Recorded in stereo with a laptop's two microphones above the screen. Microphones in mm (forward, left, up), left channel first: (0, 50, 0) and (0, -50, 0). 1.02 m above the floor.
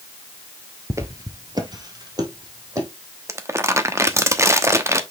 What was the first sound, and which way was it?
Footsteps, 25° right (ahead or behind).